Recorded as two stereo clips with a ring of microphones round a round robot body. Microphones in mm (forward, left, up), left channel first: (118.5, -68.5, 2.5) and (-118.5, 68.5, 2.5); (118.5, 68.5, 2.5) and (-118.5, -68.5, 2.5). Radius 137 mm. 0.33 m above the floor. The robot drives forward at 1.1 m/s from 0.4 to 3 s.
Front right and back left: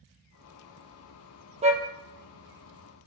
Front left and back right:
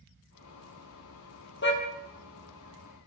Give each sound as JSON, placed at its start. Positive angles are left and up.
{"t": 1.6, "sound": "a car horn", "azimuth_deg": 80, "distance_m": 4.0}